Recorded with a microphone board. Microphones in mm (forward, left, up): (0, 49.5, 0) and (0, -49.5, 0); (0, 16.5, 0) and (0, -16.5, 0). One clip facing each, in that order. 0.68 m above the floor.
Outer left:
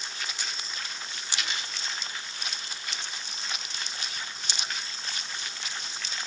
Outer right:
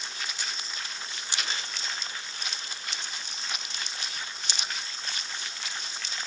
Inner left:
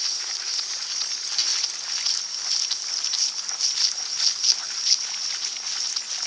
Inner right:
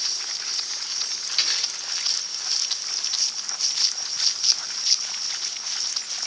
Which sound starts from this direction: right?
A dropped coin, at 1.3 s.